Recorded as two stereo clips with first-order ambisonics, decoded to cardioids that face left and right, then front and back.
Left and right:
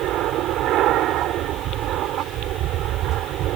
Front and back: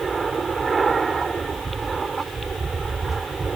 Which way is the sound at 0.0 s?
110° right.